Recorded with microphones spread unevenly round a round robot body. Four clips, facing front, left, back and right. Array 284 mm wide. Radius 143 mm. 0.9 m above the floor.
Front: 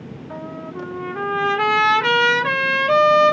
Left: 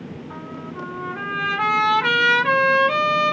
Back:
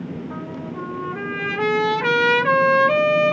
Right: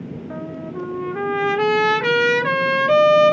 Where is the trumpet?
70° right, 0.9 m.